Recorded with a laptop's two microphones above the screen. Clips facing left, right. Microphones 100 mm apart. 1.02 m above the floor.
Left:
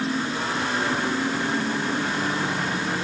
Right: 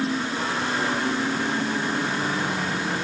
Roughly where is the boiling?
No boiling in this recording.